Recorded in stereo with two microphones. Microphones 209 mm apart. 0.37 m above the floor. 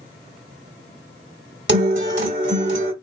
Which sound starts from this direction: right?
A guitar, at 1.7 s.